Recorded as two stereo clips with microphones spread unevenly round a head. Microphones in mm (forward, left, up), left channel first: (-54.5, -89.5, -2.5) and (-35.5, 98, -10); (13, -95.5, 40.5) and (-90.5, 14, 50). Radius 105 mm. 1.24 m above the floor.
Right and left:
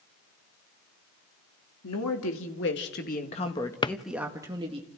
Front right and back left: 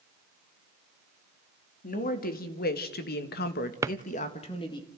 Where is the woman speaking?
75° right, 3 m; by 4.8 s 20° left, 2.5 m.